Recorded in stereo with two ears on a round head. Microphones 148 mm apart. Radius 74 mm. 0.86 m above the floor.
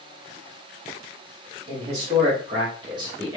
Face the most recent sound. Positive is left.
turn(degrees=-20)  # may be behind; listen again after turning